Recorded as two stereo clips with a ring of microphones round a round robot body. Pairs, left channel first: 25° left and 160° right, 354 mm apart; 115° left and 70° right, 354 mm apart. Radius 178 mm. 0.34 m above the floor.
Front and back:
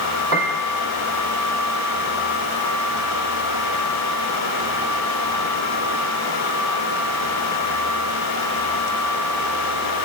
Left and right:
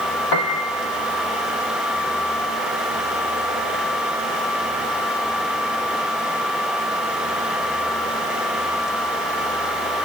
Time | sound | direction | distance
0.3 | a piano | 95° left | 3 m